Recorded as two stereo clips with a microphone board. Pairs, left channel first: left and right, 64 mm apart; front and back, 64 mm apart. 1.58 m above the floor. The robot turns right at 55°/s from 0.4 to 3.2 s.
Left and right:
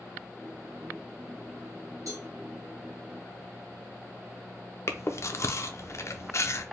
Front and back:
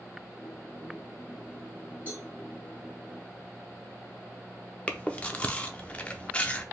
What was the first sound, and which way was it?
A cowbell, 120° right.